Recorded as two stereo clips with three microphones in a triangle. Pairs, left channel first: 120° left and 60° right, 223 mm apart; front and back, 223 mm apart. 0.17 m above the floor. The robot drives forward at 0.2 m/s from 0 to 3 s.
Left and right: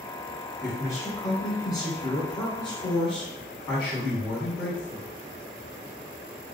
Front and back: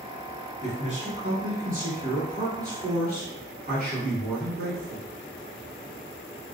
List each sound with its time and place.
0.6 s a man speaking: straight behind, 1.2 m